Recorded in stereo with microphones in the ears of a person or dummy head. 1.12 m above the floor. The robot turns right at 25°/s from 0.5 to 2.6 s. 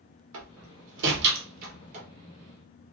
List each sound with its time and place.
0.3 s a door slam: 75° right (ahead or behind), 1.0 m; by 2.1 s 35° right (ahead or behind), 1.0 m